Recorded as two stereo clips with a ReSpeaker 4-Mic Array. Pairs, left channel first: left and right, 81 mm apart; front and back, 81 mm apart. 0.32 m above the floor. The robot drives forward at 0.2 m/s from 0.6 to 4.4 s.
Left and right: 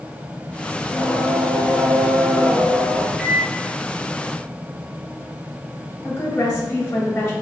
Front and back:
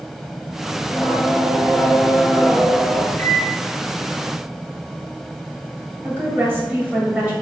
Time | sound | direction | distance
0.8 | singing | 65° right | 1.0 m
3.2 | a microwave | 15° right | 0.8 m
6.0 | a woman speaking | 135° left | 1.1 m